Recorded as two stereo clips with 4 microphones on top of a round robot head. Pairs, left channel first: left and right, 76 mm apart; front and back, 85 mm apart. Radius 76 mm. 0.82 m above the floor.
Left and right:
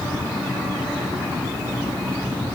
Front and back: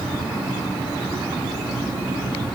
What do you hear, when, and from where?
Only background noise.